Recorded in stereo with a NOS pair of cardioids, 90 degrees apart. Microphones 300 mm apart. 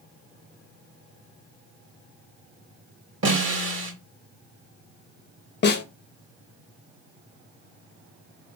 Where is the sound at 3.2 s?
40° right, 2.5 m.